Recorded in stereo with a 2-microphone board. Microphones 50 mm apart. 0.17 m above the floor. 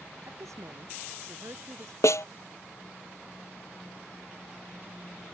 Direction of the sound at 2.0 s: 70° left (ahead or behind).